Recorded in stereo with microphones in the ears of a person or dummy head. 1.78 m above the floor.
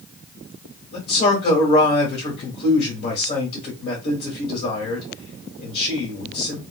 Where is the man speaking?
50° left (ahead or behind), 1.4 m.